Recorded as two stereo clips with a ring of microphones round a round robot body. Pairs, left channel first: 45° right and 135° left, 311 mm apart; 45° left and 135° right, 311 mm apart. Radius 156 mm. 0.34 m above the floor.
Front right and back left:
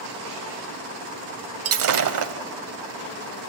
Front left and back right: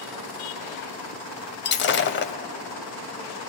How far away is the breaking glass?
About 1.2 m.